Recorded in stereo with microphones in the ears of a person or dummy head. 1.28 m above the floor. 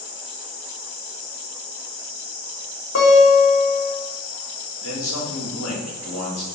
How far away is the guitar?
About 2.5 m.